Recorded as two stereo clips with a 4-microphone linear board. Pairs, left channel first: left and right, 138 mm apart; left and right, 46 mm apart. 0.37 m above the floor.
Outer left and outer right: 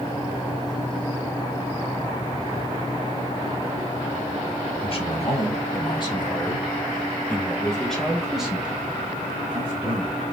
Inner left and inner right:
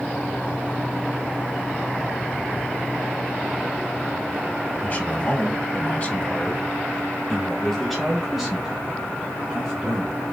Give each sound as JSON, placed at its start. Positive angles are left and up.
{"t": 4.8, "sound": "a man speaking", "side_deg": 40, "distance_m": 1.6}